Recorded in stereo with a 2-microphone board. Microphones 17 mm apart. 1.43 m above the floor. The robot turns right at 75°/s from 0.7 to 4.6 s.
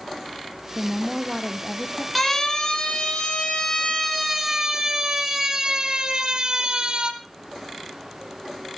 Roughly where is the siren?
Centre.